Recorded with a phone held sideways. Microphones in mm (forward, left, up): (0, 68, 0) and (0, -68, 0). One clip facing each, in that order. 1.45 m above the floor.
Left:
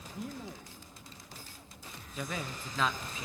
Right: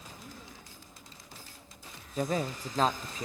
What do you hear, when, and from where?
0.1 s a man speaking: 85° left, 1.4 m
2.2 s a man speaking: 40° right (ahead or behind), 0.6 m